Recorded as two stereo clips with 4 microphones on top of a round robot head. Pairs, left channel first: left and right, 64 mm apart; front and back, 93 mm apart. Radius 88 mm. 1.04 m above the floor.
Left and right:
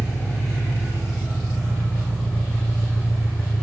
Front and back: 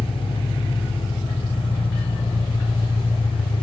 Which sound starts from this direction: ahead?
An engine running, at 0.0 s.